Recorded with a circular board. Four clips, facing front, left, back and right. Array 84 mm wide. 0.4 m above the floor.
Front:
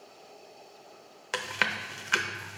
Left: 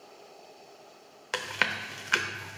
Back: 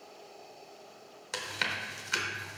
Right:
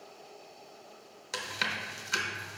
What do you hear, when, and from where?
1.3 s chewing: 50° left, 0.5 m